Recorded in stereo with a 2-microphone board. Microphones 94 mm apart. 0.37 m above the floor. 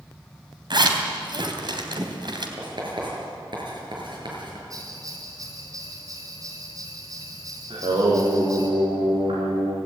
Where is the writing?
60° right (ahead or behind), 7.5 m.